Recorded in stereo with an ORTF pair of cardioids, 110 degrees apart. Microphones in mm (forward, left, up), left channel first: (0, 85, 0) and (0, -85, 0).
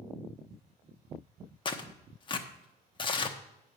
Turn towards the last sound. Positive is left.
turn(degrees=30)